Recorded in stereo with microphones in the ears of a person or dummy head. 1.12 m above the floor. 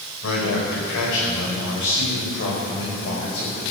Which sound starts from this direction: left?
A man speaking, at 0.2 s.